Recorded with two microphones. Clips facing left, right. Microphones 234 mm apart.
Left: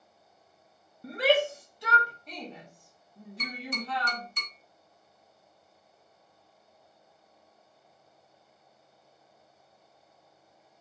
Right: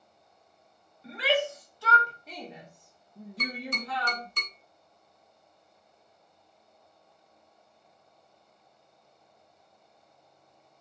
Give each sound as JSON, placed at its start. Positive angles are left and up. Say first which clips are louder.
{"t": 1.0, "sound": "a shout", "louder": "left 3 dB", "side_deg": 50, "distance_m": 1.0}
{"t": 3.4, "sound": "tapping", "louder": "right 1 dB", "side_deg": -65, "distance_m": 1.3}